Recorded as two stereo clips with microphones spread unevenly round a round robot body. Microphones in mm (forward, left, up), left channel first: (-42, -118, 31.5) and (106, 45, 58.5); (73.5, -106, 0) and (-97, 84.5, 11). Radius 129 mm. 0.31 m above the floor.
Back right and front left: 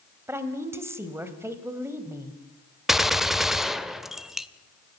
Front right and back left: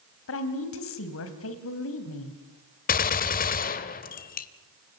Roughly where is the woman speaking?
Ahead right.